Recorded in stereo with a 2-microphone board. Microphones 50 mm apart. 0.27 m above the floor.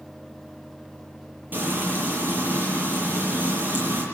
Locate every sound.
1.5 s frying: 40° right (ahead or behind), 8 m